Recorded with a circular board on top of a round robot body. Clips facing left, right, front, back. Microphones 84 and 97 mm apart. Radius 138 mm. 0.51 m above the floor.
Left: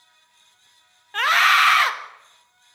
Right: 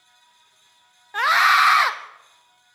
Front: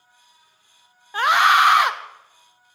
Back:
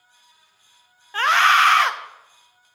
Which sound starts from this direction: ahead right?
A scream, at 1.1 s.